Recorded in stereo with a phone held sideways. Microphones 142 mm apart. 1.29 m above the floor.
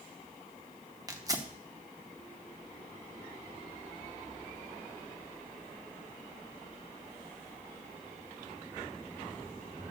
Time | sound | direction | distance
1.1 | tearing paper | 25° right (ahead or behind) | 0.9 m